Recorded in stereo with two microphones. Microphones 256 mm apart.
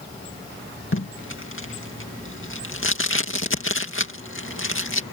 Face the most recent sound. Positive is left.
turn(degrees=50)  # may be behind; listen again after turning